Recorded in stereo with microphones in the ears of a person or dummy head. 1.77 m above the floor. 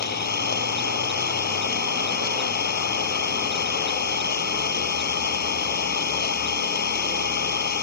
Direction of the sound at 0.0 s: 50° left (ahead or behind).